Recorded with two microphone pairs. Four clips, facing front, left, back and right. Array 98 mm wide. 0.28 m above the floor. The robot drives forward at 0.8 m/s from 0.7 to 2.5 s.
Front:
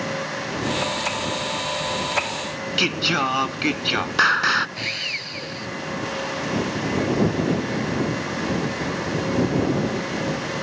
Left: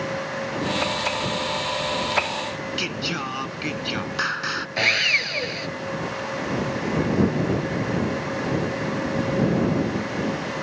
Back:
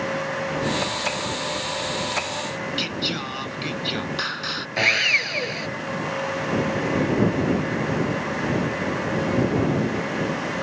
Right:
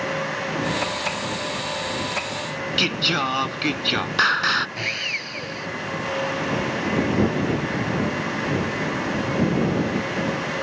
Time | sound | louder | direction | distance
2.8 | singing | right 4 dB, front 6 dB | 30° right | ?
4.8 | sawing | left 6 dB, back 9 dB | 145° left | ?